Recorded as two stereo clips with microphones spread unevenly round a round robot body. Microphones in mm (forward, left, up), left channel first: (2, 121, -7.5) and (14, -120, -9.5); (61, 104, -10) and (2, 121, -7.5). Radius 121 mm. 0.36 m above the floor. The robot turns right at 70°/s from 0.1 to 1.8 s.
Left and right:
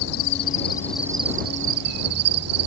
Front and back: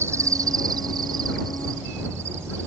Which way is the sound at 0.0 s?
125° left.